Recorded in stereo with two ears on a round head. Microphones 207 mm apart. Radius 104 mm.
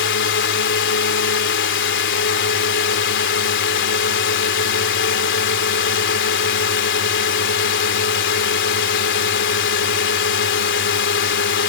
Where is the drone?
50° left (ahead or behind).